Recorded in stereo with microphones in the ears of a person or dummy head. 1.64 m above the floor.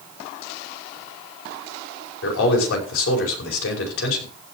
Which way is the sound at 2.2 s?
85° left.